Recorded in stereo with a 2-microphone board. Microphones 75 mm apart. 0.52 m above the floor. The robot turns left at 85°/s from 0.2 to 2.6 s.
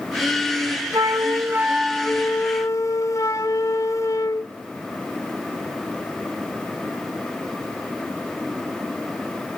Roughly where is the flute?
Right.